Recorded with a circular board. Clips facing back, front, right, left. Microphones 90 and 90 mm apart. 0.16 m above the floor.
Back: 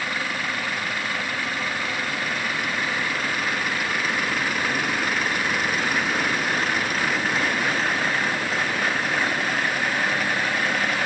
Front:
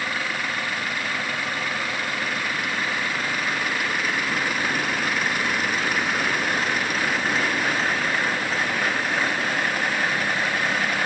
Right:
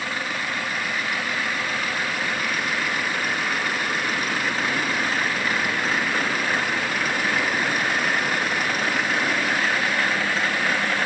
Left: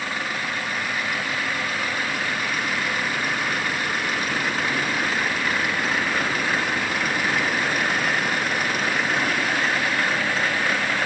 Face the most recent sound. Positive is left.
No sound to turn to.